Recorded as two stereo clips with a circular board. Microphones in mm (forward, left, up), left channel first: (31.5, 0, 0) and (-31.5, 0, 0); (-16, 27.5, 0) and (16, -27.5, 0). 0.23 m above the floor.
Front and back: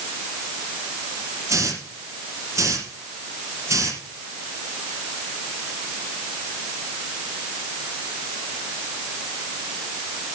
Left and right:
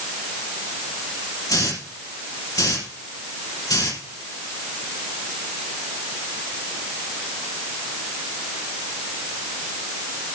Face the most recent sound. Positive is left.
turn(degrees=140)